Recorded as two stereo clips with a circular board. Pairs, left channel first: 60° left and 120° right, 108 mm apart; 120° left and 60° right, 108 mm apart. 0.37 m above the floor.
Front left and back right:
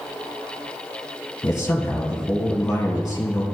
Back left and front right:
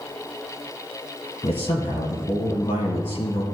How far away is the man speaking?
About 2.5 m.